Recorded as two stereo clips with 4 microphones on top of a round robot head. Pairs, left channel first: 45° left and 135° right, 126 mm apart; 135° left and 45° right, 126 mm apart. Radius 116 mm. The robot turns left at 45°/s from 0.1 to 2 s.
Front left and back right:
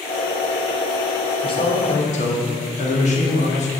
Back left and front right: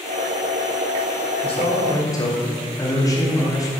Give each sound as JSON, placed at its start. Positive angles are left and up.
{"t": 1.4, "sound": "a man speaking", "azimuth_deg": 95, "distance_m": 3.0}